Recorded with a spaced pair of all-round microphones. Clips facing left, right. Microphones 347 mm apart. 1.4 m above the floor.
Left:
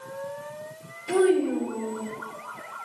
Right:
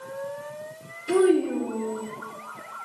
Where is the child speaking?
20° right (ahead or behind), 2 m.